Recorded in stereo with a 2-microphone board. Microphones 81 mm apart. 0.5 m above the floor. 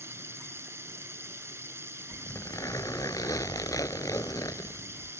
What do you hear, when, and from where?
0.0 s running water: 35° right (ahead or behind)
2.1 s a zipper: 45° left (ahead or behind)